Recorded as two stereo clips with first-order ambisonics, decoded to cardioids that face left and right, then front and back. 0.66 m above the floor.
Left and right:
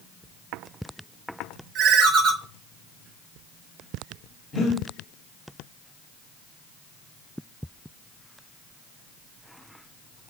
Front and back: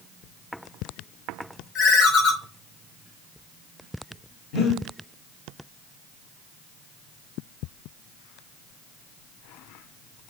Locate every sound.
1.8 s a ringtone: 45° right, 1.0 m
4.5 s breathing: 35° left, 1.8 m